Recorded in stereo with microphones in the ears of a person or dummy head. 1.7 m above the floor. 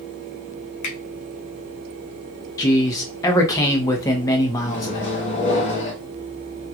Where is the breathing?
No breathing in this recording.